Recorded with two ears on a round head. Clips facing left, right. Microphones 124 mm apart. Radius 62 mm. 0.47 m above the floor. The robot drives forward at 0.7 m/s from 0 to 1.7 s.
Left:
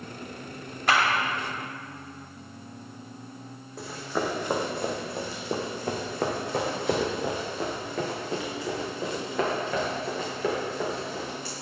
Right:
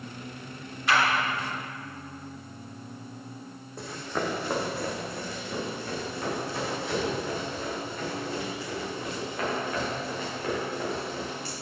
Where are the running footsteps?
Centre (ahead or behind), 1.8 m; by 11.5 s 75° left (ahead or behind), 4.5 m.